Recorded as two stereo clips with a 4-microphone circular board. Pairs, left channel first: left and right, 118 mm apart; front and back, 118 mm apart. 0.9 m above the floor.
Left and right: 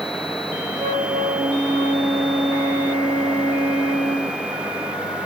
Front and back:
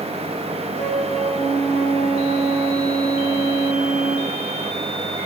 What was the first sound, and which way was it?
A flute, 30° right.